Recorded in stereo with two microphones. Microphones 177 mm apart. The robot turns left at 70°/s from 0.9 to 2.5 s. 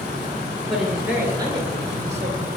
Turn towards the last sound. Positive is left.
turn(degrees=-115)